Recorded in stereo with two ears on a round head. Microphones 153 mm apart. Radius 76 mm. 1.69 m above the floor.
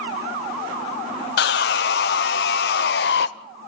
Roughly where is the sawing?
Left.